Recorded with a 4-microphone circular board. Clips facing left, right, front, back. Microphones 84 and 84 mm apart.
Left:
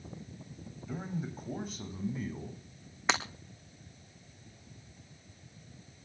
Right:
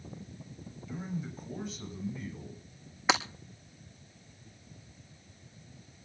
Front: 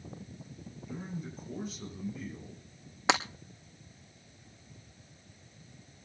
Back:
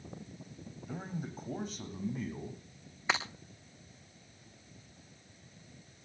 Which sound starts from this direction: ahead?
Breaking glass, at 3.1 s.